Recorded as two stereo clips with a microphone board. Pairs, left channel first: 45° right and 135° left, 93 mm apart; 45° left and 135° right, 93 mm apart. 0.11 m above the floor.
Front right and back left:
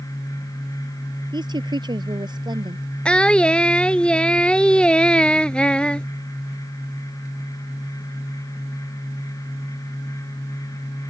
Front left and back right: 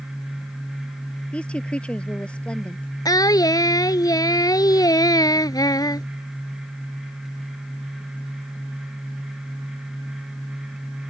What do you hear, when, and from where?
1.3 s a woman speaking: 120° left
3.0 s singing: 30° left